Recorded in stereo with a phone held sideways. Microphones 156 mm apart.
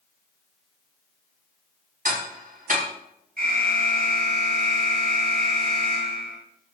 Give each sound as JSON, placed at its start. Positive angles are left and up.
{"t": 2.0, "sound": "ticking", "side_deg": -65, "distance_m": 5.0}
{"t": 3.4, "sound": "an alarm", "side_deg": -70, "distance_m": 8.5}